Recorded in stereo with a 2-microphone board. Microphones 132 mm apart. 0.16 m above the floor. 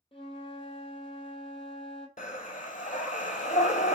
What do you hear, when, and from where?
0.1 s a flute: 45° left (ahead or behind), 0.8 m
2.2 s breathing: 80° left, 0.5 m